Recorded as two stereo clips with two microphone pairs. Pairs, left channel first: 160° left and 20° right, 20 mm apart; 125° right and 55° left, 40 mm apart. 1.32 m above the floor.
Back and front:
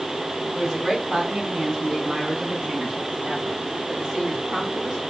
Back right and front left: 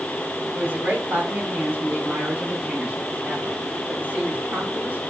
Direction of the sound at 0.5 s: 35° left.